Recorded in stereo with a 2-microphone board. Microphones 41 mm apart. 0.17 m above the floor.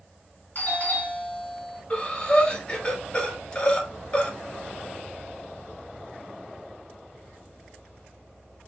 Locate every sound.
0.6 s a doorbell: 45° left (ahead or behind), 3 m
1.9 s breathing: 25° left (ahead or behind), 1.2 m